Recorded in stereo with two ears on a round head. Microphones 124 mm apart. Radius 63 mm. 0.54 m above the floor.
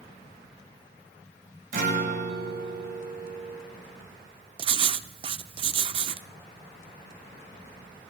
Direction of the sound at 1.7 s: 70° right (ahead or behind).